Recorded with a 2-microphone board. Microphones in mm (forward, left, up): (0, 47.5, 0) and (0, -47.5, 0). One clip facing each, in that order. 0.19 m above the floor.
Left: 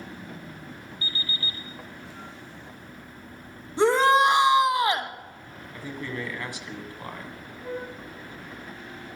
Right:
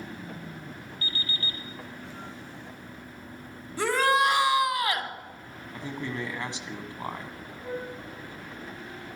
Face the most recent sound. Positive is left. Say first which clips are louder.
# left 1 dB
turn(degrees=-25)  # may be behind; listen again after turning